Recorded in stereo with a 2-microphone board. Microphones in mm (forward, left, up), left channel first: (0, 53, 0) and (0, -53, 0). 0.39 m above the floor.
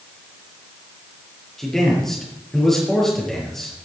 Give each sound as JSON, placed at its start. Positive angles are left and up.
{"t": 1.6, "sound": "a man speaking", "side_deg": 0, "distance_m": 7.0}